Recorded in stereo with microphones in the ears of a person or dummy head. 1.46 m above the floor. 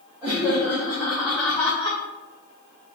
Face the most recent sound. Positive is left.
turn(degrees=30)  # may be behind; listen again after turning